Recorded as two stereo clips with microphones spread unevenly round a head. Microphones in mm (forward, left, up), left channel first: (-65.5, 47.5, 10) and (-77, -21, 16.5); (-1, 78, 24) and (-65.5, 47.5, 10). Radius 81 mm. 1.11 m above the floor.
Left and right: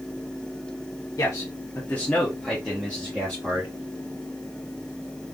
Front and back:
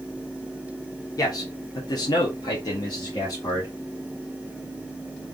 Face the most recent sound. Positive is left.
turn(degrees=-40)